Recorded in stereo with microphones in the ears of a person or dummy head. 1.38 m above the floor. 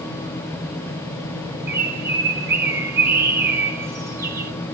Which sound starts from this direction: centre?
A bird, at 1.7 s.